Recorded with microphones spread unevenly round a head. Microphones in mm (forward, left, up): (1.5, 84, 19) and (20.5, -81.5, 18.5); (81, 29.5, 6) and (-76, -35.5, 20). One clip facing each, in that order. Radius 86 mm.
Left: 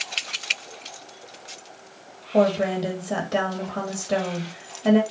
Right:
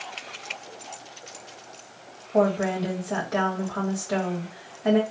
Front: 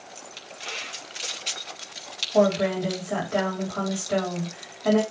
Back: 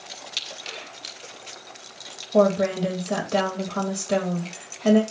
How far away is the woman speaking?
About 2.5 m.